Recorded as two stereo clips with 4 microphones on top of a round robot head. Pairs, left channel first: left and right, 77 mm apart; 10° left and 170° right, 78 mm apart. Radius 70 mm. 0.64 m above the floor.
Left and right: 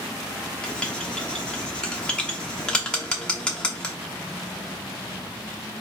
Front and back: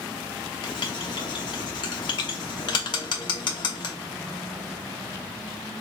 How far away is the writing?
About 0.8 m.